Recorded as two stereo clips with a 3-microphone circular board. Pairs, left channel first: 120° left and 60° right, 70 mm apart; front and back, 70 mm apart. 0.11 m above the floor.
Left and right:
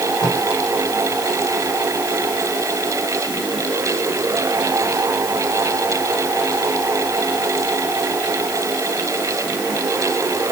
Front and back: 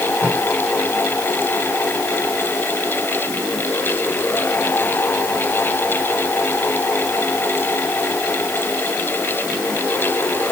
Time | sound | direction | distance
0.2 | tape being pulled | 115° left | 9 m